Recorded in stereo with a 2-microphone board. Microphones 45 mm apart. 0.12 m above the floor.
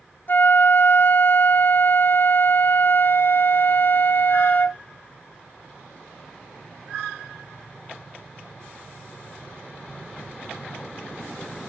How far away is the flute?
About 0.5 m.